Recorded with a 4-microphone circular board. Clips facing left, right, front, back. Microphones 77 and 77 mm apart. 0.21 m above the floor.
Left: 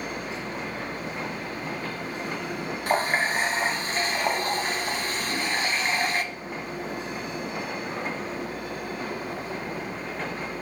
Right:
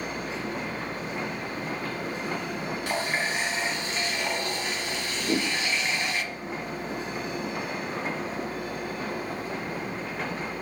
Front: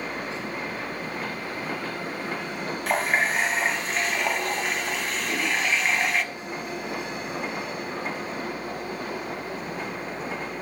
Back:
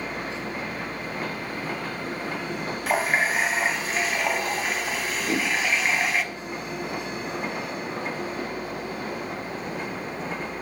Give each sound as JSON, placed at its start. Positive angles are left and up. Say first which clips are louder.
{"t": 2.9, "sound": "a running tap", "louder": "left 6 dB, back 1 dB", "azimuth_deg": 95, "distance_m": 1.1}
{"t": 5.2, "sound": "a whoosh", "louder": "right 3 dB, back 4 dB", "azimuth_deg": -120, "distance_m": 2.0}